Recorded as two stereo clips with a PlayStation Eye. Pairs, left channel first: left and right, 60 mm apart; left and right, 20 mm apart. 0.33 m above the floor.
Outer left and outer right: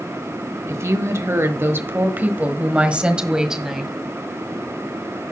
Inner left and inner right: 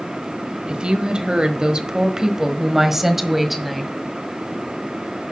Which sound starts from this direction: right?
A woman speaking, at 0.7 s.